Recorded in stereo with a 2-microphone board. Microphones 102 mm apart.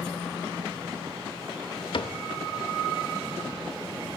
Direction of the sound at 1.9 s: 60° left (ahead or behind).